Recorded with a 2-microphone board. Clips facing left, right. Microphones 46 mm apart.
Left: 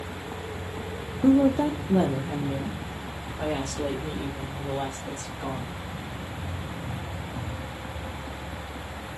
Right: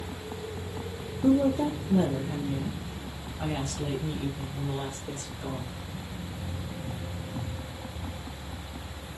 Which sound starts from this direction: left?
A woman speaking, at 1.2 s.